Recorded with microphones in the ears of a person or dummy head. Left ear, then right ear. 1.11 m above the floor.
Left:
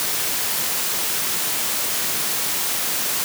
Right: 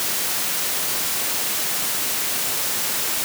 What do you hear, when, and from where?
Only background noise.